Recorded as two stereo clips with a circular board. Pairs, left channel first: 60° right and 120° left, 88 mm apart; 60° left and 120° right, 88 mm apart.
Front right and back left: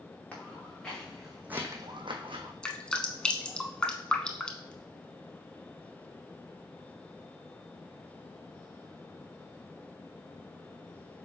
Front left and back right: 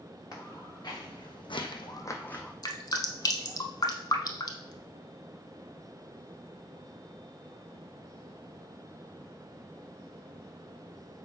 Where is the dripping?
20° left, 0.6 m.